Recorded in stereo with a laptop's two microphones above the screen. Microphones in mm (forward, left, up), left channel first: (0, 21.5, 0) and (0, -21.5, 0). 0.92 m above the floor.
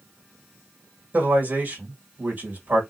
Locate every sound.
1.1 s a man speaking: 45° right (ahead or behind), 1.6 m